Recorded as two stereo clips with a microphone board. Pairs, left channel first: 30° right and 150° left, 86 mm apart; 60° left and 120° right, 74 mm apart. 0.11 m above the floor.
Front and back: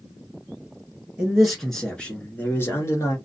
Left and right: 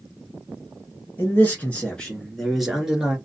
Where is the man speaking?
80° left, 1.3 m; by 3.2 s 50° right, 1.5 m.